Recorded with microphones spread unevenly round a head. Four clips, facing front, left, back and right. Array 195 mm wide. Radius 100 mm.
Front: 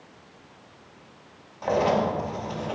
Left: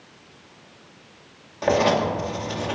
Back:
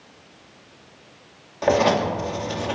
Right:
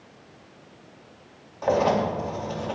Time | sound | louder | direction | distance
1.6 | writing | left 2 dB, back 4 dB | 130° left | 2.5 m